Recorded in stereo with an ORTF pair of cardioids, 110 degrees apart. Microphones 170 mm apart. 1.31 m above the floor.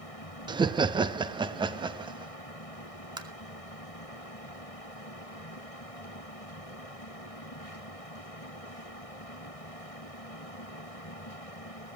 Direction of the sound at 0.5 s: 25° right.